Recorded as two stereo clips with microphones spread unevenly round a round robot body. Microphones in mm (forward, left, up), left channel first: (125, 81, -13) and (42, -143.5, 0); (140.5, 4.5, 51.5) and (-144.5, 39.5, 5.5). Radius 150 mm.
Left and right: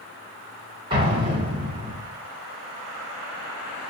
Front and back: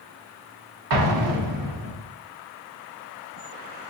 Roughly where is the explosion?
Behind.